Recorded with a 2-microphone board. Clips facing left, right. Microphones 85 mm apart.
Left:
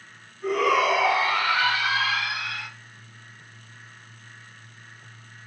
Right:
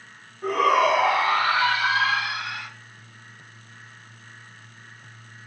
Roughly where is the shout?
Right.